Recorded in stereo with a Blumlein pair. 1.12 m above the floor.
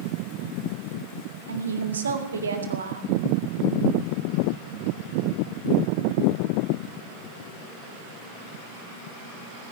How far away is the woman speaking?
About 2.0 m.